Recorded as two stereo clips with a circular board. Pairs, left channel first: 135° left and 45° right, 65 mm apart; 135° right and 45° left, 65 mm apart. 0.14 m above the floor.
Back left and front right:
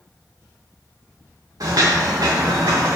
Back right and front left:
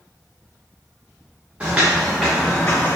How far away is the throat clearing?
I don't hear throat clearing.